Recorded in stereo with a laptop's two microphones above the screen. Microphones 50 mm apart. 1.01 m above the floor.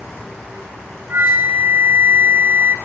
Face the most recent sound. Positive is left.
turn(degrees=-45)  # may be behind; listen again after turning